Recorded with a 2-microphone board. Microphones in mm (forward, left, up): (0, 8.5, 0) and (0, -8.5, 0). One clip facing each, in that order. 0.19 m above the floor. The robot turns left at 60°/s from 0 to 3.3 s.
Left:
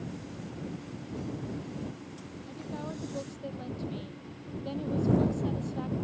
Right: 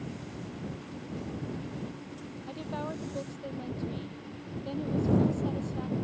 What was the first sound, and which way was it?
A woman speaking, 145° right.